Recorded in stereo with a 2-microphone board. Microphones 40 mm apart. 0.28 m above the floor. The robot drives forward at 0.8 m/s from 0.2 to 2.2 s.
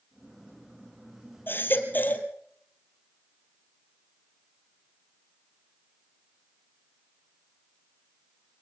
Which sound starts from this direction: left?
A baby crying, at 1.5 s.